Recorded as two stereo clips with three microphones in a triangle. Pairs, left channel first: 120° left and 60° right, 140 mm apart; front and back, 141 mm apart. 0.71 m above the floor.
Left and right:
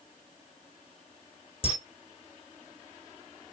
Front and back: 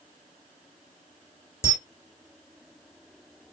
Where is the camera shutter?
70° left, 2.5 m.